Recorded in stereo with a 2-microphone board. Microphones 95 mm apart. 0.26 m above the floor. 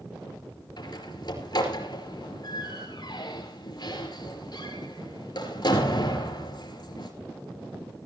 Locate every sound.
0.8 s a door slam: 50° left (ahead or behind), 4.5 m